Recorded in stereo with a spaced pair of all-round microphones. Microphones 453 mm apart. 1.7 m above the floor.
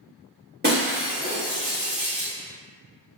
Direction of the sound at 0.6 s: 20° right (ahead or behind).